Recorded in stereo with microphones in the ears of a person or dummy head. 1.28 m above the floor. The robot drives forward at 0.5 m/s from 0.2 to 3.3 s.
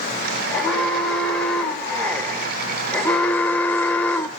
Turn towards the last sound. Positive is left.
turn(degrees=10)  # may be behind; listen again after turning